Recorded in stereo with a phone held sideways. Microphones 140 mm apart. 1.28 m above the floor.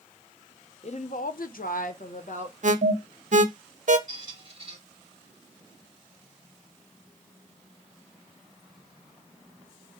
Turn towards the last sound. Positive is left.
turn(degrees=-35)  # may be behind; listen again after turning